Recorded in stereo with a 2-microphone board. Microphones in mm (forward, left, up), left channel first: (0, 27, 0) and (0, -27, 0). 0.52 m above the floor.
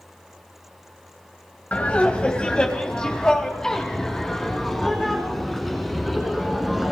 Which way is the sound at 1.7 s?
25° left (ahead or behind).